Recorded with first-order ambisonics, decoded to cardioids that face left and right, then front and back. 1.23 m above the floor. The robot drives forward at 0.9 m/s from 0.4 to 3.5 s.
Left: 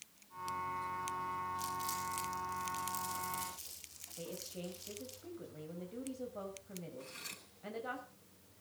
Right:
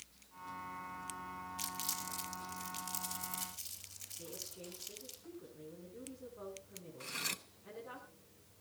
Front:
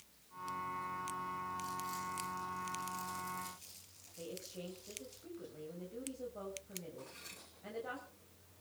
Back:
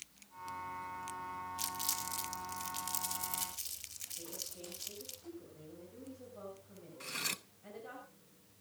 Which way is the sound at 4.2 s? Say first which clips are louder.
Left 5 dB, front 4 dB; 70° left.